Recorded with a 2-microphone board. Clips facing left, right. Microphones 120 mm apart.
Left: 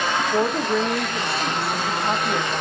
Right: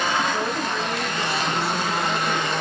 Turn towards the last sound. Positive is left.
turn(degrees=50)  # may be behind; listen again after turning